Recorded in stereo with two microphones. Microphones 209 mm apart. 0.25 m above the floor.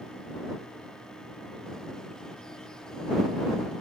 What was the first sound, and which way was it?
Only background noise.